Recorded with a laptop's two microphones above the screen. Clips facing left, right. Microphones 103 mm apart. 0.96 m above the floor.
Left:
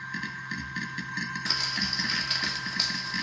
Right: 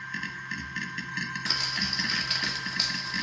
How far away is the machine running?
About 1.1 m.